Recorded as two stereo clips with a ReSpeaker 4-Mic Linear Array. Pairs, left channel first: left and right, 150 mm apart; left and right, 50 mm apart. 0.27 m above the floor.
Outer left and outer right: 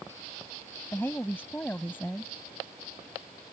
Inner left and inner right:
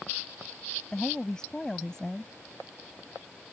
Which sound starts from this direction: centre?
A woman speaking, at 0.9 s.